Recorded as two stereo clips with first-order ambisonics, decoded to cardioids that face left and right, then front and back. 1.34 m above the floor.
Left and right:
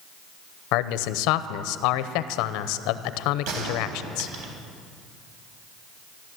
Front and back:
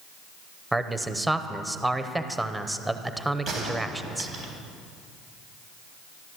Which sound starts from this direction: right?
A gunshot, at 3.5 s.